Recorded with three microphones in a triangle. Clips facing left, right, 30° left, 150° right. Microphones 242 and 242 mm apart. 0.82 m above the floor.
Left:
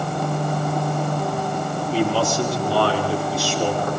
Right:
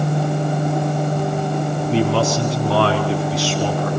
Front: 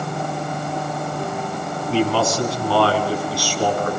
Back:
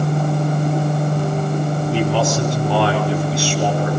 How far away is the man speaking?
About 9.5 m.